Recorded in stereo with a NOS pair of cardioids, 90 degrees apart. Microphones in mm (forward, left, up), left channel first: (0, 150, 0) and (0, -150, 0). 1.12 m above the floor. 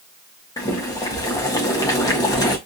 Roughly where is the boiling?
Ahead.